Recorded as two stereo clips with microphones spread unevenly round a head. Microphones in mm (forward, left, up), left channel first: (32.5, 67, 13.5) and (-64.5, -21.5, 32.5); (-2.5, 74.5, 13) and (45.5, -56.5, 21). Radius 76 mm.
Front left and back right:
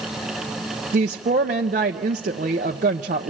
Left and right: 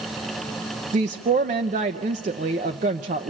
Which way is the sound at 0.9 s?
110° right.